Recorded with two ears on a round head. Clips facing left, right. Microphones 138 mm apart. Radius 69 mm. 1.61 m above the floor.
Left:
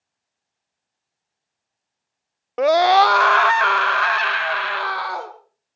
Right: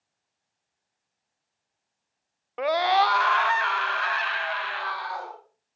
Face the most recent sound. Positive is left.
turn(degrees=65)  # may be behind; listen again after turning